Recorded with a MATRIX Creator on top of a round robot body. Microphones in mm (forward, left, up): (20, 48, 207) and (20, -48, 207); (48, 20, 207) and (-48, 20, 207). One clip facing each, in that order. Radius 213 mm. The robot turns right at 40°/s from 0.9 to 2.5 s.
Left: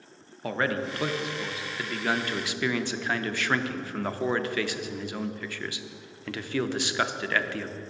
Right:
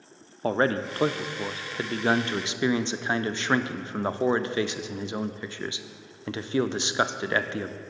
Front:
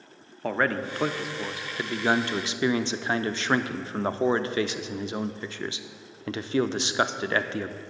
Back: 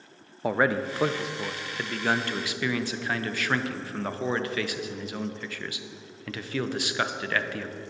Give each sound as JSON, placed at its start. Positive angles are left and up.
{"t": 0.4, "sound": "a man speaking", "azimuth_deg": -105, "distance_m": 0.6}